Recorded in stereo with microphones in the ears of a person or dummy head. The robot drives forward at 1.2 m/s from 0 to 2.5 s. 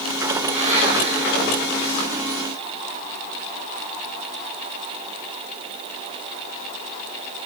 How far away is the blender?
About 4 m.